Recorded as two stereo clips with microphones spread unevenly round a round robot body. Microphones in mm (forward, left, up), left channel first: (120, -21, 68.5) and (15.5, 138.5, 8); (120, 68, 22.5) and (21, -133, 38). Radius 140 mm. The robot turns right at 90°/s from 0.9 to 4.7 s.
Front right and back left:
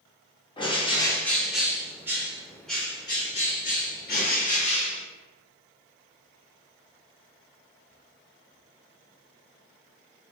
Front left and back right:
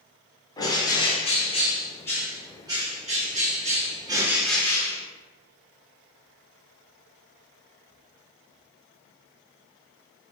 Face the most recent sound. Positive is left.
turn(degrees=0)